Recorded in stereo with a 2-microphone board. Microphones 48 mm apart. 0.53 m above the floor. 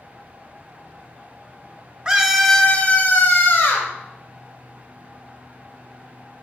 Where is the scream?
25° right (ahead or behind), 1.3 m; by 3.9 s 60° left (ahead or behind), 3 m.